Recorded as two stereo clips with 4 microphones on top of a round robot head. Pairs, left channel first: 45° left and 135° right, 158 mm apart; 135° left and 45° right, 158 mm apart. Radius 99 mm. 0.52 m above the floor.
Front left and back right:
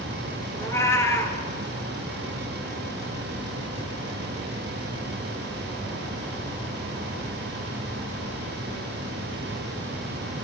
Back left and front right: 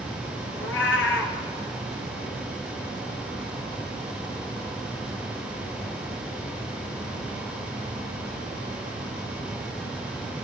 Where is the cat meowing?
120° left, 2.5 m.